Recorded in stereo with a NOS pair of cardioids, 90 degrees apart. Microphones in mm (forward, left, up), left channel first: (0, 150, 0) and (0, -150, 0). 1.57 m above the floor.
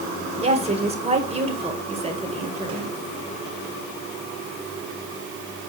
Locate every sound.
0.4 s a woman speaking: 20° right, 2.0 m